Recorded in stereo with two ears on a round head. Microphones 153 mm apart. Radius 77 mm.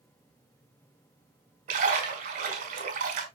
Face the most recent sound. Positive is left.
turn(degrees=-45)  # may be behind; listen again after turning